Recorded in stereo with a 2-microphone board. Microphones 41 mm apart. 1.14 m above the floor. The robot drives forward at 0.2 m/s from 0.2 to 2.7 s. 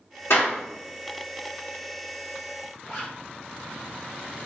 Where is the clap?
80° left, 1.9 m; by 0.6 s 85° left, 1.9 m.